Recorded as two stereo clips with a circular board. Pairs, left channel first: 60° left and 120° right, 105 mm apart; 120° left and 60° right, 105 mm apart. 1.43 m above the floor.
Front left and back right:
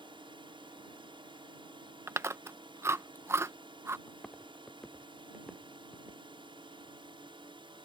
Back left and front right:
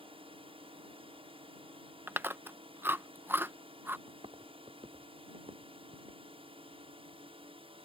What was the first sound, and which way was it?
A drone, 85° right.